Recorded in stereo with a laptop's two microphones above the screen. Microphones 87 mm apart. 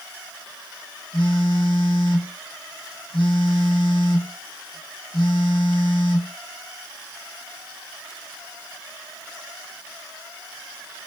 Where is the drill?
I don't hear a drill.